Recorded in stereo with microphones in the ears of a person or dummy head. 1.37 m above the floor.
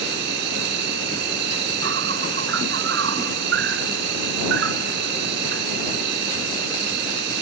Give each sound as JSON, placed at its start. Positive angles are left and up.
{"t": 0.0, "sound": "an insect", "side_deg": -75}